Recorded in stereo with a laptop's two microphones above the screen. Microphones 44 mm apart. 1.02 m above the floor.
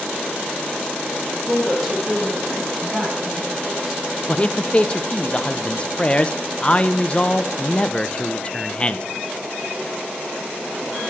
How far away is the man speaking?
About 0.6 m.